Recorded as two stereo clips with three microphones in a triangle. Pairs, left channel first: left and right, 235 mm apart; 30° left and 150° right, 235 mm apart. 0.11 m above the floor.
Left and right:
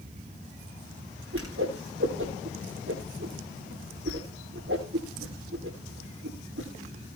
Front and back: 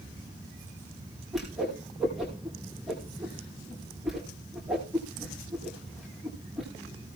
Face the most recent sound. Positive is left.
turn(degrees=-60)